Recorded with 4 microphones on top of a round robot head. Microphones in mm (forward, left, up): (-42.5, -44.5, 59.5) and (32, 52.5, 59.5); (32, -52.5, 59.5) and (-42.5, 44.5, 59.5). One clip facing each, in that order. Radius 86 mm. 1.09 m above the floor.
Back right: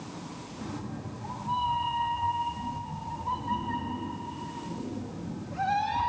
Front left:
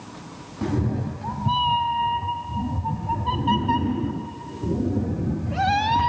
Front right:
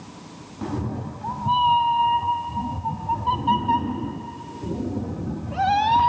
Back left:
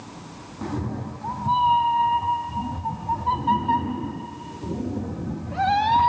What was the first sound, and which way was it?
A cat meowing, 30° left.